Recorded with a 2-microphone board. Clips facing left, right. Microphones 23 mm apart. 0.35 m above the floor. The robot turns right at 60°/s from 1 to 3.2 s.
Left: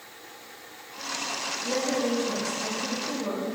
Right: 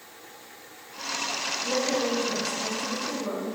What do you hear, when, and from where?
1.6 s a woman speaking: 35° right, 1.7 m; by 3.5 s 60° left, 1.7 m